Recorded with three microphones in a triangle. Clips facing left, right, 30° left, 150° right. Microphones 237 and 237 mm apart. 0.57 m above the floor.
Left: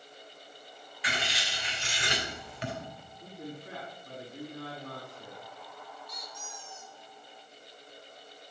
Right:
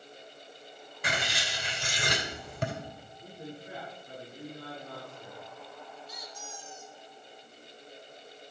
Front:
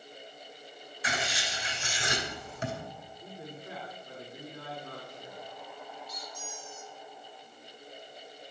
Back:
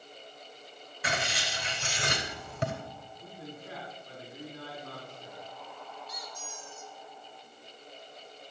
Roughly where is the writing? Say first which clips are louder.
Right 2 dB, back 1 dB; behind right.